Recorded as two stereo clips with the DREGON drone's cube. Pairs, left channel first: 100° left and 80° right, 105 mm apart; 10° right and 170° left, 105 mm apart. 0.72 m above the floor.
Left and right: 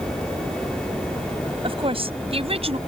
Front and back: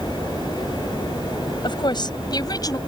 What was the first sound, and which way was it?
A woman speaking, 50° right.